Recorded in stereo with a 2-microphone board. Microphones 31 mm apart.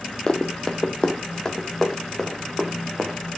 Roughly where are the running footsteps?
Left.